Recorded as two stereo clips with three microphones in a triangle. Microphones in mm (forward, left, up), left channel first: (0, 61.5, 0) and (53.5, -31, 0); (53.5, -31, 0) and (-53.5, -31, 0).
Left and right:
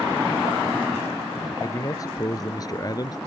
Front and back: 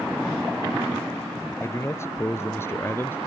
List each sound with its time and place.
1.6 s a man speaking: 65° left; by 3.2 s 70° left